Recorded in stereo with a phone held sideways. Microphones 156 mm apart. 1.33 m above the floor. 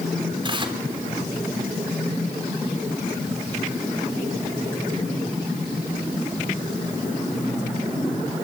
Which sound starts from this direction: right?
Tearing paper, at 0.4 s.